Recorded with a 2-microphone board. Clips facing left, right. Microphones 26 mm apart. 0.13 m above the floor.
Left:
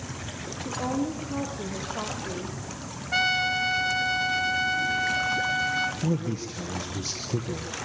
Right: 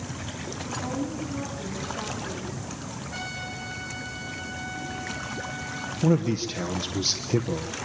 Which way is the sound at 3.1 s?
55° left (ahead or behind).